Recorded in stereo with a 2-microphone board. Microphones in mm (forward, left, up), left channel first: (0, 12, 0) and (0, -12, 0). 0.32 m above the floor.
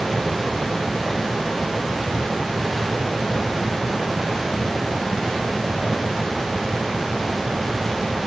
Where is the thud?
I don't hear a thud.